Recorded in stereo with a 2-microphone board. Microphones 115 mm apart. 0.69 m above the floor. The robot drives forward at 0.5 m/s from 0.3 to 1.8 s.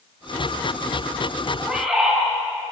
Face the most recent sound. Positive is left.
turn(degrees=-10)  # may be behind; listen again after turning